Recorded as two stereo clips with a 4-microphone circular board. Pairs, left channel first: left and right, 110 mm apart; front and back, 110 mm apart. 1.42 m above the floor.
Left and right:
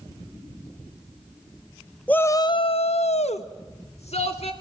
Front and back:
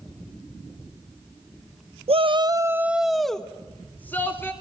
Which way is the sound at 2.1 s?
165° left.